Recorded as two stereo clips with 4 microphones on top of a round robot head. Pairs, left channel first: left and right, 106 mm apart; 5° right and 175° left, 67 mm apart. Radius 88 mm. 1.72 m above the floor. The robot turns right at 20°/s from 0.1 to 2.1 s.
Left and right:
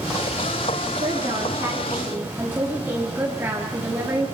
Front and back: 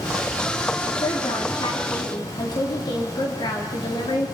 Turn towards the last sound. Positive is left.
turn(degrees=-15)